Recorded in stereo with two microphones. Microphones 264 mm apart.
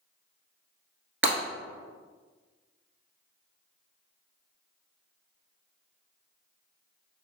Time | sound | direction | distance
1.2 | breaking glass | 50° right (ahead or behind) | 1.5 m